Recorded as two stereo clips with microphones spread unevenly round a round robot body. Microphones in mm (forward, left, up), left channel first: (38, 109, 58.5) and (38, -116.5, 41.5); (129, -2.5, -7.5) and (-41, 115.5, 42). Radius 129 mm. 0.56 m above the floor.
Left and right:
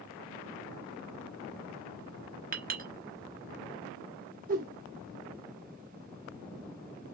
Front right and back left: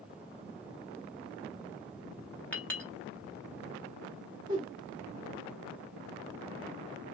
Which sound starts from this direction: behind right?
A whoosh, at 4.5 s.